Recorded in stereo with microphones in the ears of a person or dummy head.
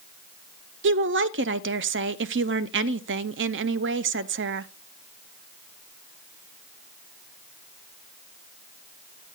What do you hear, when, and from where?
0.8 s a woman speaking: 55° right (ahead or behind), 0.5 m